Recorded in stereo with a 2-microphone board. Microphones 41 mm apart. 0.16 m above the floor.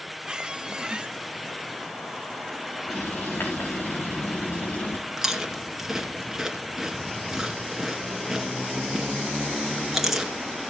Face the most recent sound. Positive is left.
turn(degrees=-5)  # may be behind; listen again after turning